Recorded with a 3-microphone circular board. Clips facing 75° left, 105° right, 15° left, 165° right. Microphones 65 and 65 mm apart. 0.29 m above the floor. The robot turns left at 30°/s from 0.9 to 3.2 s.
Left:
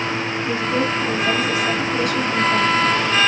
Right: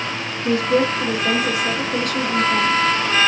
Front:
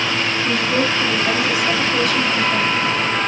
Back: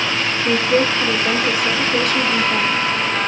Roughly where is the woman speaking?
Right.